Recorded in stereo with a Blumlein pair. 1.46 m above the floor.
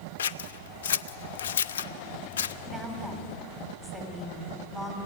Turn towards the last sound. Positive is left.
turn(degrees=15)